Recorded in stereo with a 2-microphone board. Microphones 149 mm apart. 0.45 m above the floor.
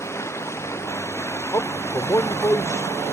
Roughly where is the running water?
Centre.